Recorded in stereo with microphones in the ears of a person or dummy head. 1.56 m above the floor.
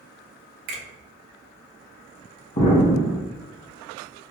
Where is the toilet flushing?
I don't hear a toilet flushing.